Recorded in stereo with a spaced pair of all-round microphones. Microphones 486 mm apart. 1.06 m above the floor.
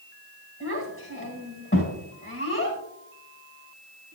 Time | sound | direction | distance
0.6 | a child speaking | 25° left (ahead or behind) | 4.5 m